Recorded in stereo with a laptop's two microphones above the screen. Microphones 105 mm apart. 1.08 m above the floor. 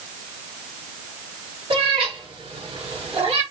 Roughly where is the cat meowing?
Right.